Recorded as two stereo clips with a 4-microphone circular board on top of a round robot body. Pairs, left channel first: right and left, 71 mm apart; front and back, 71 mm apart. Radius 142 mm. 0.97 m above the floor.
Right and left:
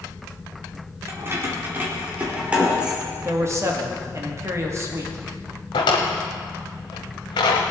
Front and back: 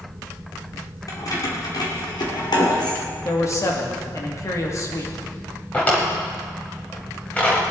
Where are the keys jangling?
40° left, 2.5 m; by 3.0 s 10° left, 3 m.